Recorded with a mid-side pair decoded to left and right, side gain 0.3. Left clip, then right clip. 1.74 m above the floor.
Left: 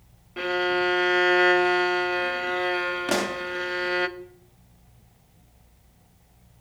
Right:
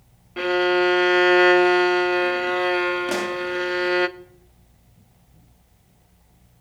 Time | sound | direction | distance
0.4 | a violin | 35° right | 0.6 m
3.1 | a pop | 40° left | 0.6 m